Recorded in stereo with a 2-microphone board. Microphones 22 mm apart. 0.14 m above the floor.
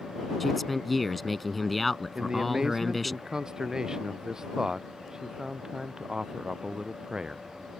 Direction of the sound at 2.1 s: 25° right (ahead or behind).